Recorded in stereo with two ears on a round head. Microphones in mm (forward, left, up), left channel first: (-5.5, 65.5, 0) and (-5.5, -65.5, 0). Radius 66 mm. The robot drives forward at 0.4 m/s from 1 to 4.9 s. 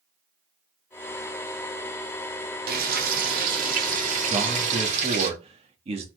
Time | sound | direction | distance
2.7 | frying | 70° right (ahead or behind) | 2.5 m
4.3 | a man speaking | 45° right (ahead or behind) | 1.7 m